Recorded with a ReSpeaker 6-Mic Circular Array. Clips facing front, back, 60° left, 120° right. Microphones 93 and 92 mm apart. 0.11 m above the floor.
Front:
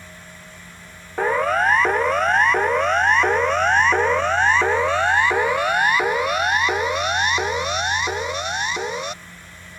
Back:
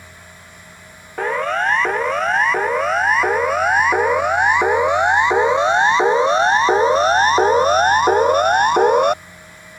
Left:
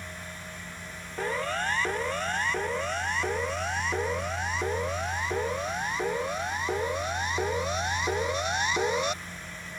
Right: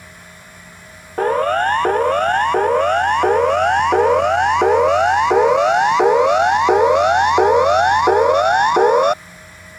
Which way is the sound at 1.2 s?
85° right.